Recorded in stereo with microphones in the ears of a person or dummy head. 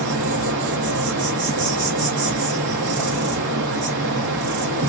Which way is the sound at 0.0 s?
60° right (ahead or behind).